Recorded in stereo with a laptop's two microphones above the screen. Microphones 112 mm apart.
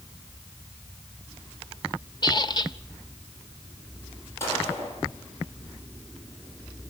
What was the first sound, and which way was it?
A squeak, 40° left (ahead or behind).